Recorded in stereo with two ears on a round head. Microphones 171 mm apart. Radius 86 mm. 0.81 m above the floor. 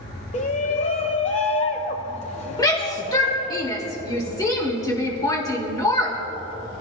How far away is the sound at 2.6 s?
About 1.9 m.